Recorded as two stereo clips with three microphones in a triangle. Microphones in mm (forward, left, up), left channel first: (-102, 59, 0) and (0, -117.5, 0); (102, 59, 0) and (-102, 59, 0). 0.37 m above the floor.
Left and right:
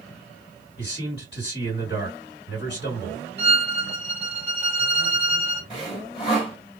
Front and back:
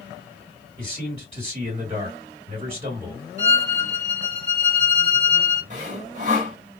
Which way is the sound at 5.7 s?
165° left.